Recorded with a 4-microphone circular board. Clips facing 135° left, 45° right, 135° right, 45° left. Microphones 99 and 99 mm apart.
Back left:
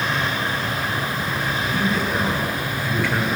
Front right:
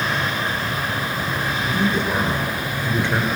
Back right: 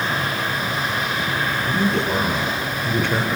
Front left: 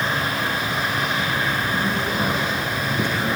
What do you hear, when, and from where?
1.6 s a man speaking: 110° right, 7.5 m